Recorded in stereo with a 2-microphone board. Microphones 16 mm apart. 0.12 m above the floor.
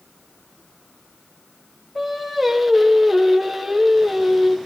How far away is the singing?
About 1.6 m.